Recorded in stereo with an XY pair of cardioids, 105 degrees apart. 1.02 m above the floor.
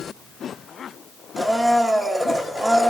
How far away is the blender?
About 1.2 m.